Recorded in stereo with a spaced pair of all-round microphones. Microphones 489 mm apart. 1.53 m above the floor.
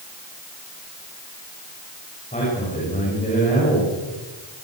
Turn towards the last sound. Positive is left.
turn(degrees=15)  # may be behind; listen again after turning